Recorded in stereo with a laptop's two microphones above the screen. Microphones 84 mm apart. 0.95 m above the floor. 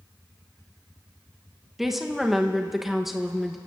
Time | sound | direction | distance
1.8 | a woman speaking | 5° right (ahead or behind) | 0.8 m